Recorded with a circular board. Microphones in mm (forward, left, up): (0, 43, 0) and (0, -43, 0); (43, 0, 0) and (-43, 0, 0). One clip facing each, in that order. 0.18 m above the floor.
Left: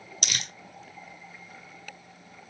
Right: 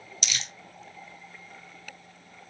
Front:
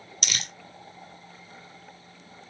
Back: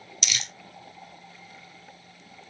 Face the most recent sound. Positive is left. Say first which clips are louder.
# left 1 dB, even
turn(degrees=50)